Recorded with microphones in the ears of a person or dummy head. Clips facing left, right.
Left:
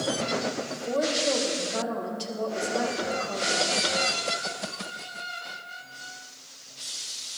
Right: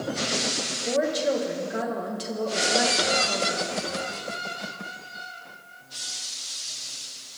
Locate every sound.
0.7 s a woman speaking: 20° right (ahead or behind), 2 m